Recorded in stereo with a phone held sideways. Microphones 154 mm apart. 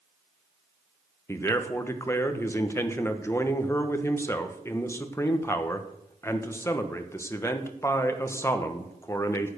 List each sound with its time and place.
1.3 s a man speaking: 15° left (ahead or behind), 1.2 m